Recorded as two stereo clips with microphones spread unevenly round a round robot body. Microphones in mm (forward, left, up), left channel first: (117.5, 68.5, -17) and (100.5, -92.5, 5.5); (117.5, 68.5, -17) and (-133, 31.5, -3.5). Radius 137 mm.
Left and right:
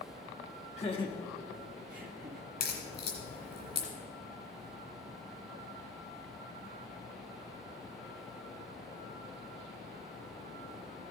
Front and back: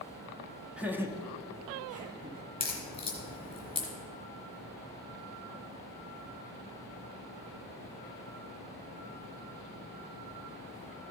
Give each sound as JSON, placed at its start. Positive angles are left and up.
{"t": 0.8, "sound": "laughter", "azimuth_deg": 100, "distance_m": 1.4}
{"t": 2.6, "sound": "a crack", "azimuth_deg": 75, "distance_m": 3.5}